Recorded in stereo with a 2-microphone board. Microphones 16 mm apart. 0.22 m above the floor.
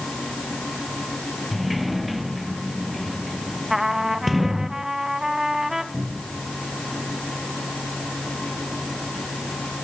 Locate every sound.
1.5 s a sliding door: 10° right (ahead or behind), 3.5 m
3.7 s a trumpet: 20° right (ahead or behind), 1.6 m
5.9 s a cupboard door: 85° right, 9.5 m